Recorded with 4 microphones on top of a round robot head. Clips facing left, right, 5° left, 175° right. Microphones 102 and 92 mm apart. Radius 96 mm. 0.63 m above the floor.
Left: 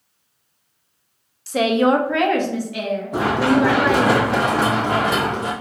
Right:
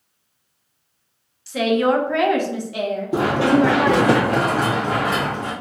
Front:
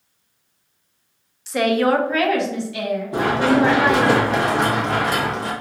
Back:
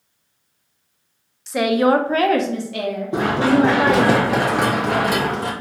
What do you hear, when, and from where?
1.5 s a woman speaking: 95° left, 0.7 m; by 4.1 s 130° right, 1.8 m
3.1 s running footsteps: 100° right, 1.3 m; by 5.5 s 150° left, 1.0 m